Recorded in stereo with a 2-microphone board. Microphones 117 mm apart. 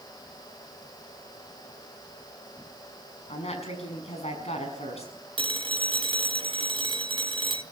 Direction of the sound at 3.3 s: 65° left (ahead or behind).